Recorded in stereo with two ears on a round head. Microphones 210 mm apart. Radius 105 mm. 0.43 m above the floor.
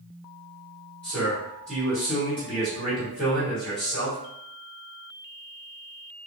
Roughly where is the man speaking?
Centre.